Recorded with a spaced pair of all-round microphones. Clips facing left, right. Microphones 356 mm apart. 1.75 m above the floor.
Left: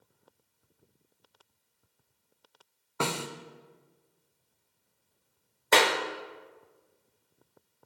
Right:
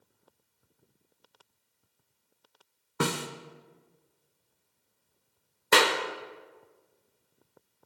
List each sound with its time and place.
3.0 s a snare drum: 25° right (ahead or behind), 0.5 m
5.7 s a clap: 20° right (ahead or behind), 0.6 m